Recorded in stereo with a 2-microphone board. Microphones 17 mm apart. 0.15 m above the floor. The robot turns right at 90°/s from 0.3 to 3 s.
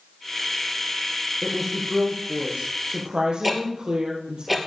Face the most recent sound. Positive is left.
turn(degrees=0)  # may be behind; listen again after turning